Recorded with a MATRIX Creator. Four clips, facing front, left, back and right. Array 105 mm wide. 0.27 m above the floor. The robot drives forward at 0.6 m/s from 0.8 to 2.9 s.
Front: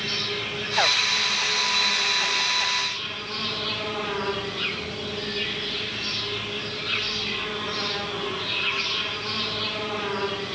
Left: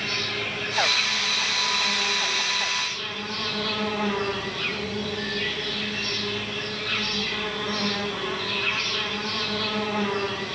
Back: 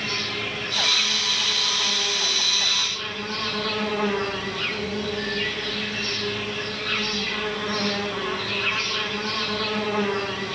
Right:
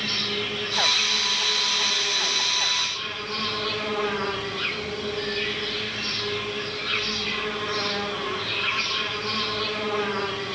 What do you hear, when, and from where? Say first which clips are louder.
0.0 s an insect: right 1 dB, back 1 dB; 105° left, 2 m; by 10.6 s 140° left, 2.5 m